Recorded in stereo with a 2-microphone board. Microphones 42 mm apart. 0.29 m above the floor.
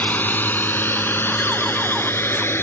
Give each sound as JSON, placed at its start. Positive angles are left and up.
{"t": 0.0, "sound": "a drone", "side_deg": 45}